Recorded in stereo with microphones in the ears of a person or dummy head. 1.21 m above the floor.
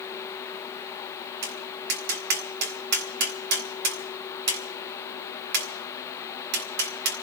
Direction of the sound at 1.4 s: 55° right (ahead or behind).